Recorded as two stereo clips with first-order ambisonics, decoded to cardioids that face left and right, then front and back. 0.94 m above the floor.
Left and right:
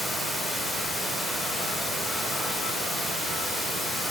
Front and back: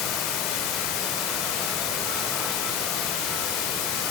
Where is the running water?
Straight ahead, 1.9 m.